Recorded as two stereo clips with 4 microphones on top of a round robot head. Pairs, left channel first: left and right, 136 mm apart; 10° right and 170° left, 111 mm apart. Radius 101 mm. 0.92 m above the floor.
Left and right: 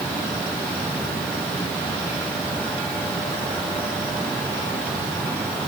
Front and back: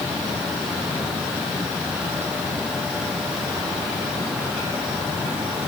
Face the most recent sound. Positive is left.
No sound to turn to.